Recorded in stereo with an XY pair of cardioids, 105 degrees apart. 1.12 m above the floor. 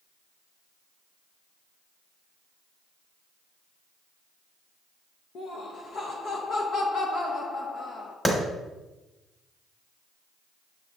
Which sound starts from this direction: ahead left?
Laughter, at 5.3 s.